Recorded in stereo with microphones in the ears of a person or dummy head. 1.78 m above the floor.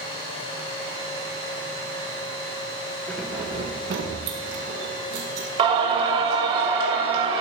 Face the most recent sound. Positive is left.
turn(degrees=-30)  # may be behind; listen again after turning